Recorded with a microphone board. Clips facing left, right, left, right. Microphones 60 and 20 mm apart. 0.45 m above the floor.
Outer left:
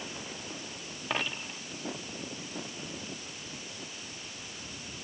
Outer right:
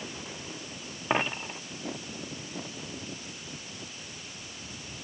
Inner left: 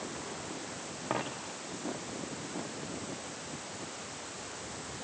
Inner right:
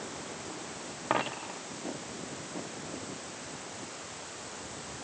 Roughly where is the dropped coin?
Right.